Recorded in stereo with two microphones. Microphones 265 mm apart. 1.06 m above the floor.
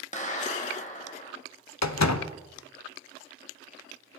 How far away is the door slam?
About 0.6 m.